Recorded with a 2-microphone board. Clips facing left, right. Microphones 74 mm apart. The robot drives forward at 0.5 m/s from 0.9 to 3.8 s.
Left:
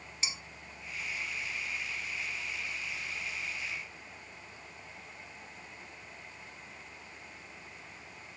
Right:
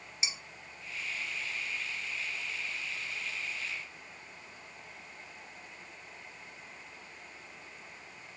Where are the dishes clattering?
10° right (ahead or behind), 1.6 m.